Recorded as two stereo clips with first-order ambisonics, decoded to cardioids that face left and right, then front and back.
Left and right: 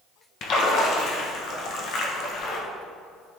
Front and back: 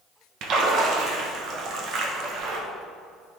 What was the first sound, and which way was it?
A splash, 135° left.